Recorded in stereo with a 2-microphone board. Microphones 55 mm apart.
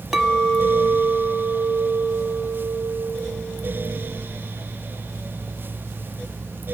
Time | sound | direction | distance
0.1 | a clink | 10° right (ahead or behind) | 0.8 m